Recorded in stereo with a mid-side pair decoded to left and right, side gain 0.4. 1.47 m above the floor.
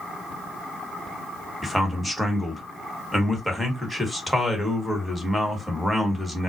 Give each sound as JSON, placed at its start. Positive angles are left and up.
{"t": 1.6, "sound": "a man speaking", "azimuth_deg": 0, "distance_m": 1.4}